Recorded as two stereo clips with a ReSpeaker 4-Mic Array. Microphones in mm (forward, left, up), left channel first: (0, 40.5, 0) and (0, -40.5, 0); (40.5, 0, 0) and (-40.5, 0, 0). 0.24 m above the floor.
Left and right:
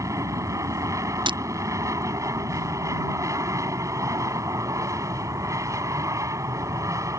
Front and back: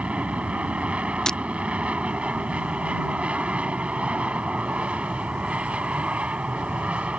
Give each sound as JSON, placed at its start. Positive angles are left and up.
{"t": 0.0, "sound": "an aircraft", "azimuth_deg": -110}
{"t": 1.3, "sound": "breaking glass", "azimuth_deg": -85}